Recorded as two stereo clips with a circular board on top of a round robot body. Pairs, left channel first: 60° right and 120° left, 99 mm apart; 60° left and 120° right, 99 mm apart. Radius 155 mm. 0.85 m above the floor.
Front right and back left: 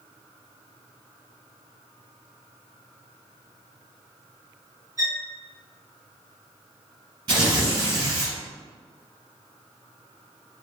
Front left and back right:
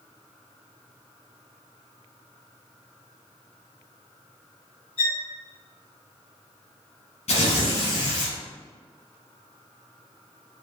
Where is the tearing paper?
70° left, 1.0 m.